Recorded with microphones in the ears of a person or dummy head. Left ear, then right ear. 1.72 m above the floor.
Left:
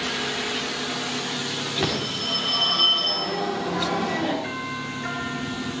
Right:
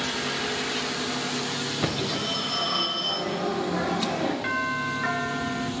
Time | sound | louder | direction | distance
1.8 | a phone ringing | left 1 dB | 30° left (ahead or behind) | 3.5 m
4.4 | a doorbell | right 4 dB | 35° right (ahead or behind) | 1.2 m